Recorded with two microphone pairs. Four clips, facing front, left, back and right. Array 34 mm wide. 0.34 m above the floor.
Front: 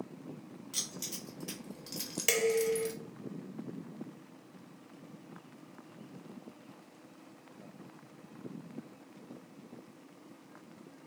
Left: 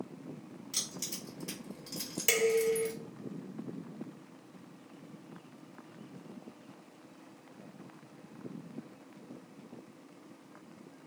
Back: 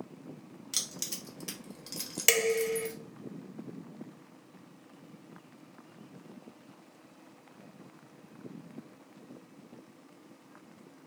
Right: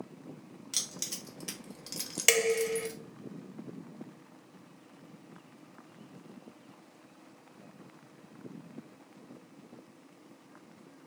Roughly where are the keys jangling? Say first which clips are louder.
Right 2 dB, back 3 dB; behind right.